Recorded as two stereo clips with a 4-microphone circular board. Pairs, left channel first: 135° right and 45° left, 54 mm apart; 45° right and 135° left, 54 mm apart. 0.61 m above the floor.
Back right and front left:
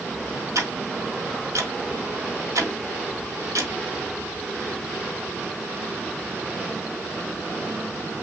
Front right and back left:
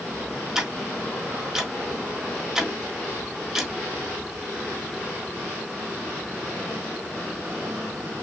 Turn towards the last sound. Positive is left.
turn(degrees=50)